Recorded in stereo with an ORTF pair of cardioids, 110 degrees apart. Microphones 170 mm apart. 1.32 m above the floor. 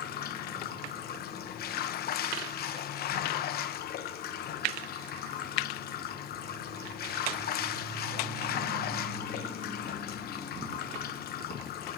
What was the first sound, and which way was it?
Running water, 65° left.